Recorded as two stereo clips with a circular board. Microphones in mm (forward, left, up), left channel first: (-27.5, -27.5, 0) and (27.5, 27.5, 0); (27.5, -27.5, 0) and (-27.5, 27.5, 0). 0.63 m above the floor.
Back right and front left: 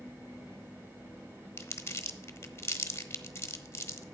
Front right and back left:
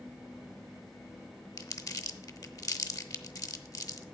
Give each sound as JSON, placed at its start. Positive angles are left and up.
{"t": 1.6, "sound": "crumpling", "azimuth_deg": -80, "distance_m": 0.8}